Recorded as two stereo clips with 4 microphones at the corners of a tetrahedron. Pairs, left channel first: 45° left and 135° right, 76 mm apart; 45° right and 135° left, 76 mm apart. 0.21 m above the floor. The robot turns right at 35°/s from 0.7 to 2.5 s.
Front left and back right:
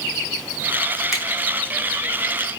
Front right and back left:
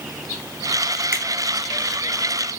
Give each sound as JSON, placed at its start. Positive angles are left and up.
{"t": 1.1, "sound": "a finger snap", "azimuth_deg": 140, "distance_m": 1.3}